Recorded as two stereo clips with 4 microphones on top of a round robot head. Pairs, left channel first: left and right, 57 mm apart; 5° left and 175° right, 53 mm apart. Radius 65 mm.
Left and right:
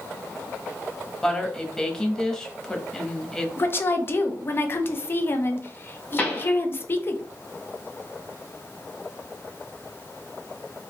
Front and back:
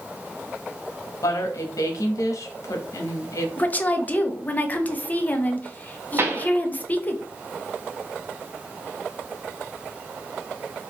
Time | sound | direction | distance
1.2 | a woman speaking | 15° left | 1.1 m
3.6 | a woman speaking | 55° left | 0.8 m
6.2 | a pop | 155° left | 1.2 m